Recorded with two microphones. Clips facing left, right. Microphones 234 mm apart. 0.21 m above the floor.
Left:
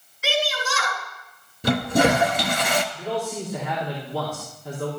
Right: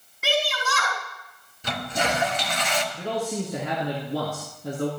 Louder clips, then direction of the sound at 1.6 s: Left 10 dB; 55° left (ahead or behind).